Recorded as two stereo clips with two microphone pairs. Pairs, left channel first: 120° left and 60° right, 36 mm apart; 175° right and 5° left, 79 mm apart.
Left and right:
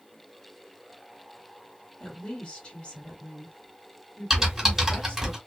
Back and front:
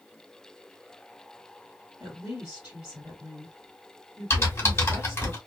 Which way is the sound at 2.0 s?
75° left.